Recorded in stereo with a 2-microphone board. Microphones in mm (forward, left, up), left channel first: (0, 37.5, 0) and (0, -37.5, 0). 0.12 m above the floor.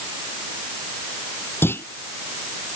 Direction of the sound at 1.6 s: 30° left (ahead or behind).